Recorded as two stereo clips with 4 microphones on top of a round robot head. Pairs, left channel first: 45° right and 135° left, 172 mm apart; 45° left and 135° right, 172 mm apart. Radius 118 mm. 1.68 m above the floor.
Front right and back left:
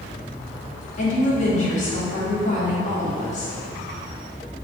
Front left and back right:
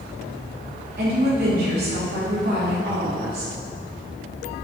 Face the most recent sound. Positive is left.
turn(degrees=-95)